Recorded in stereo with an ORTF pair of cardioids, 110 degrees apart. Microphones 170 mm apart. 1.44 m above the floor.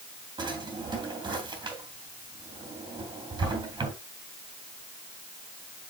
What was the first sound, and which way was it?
A drawer, 25° right.